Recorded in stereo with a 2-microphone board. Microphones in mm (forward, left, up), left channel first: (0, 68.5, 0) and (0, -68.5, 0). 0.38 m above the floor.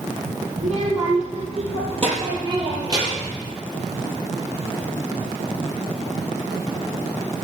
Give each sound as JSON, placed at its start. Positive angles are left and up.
{"t": 0.6, "sound": "a child speaking", "side_deg": -60, "distance_m": 6.5}